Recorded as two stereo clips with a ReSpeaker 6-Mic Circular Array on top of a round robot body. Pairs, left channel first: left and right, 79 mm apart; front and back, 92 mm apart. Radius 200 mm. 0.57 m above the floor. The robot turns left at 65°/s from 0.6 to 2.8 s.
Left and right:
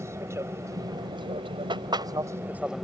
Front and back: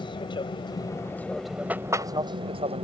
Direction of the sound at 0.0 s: 35° right.